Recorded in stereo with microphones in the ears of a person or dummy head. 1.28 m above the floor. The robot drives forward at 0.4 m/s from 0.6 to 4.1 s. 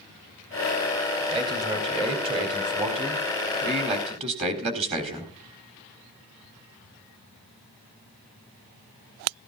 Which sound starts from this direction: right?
A man speaking, at 1.3 s.